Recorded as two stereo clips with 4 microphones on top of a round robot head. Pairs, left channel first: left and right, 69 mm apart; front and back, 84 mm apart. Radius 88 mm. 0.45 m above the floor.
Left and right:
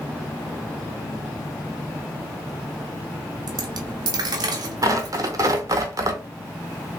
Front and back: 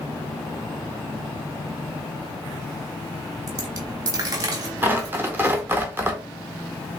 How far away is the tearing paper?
About 0.7 m.